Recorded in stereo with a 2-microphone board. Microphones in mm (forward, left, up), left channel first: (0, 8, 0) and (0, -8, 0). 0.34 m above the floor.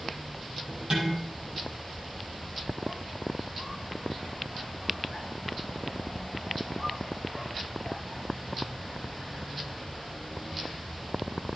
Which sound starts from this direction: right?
Dishes clattering, at 0.9 s.